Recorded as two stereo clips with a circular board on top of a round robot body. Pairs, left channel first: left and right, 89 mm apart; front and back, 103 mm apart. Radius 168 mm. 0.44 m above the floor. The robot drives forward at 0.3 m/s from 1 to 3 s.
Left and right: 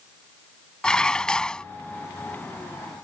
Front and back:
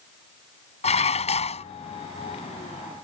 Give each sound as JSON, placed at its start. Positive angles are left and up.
{"t": 0.8, "sound": "dishes clattering", "azimuth_deg": 10}